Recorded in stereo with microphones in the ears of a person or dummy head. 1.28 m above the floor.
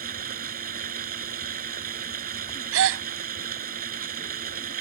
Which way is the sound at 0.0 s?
45° right (ahead or behind).